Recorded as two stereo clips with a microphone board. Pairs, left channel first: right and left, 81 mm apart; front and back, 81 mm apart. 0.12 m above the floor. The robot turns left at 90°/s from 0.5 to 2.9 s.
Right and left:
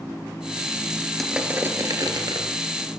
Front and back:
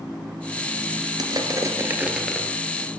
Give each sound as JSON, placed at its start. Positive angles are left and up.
{"t": 1.2, "sound": "crushing", "azimuth_deg": -175, "distance_m": 2.5}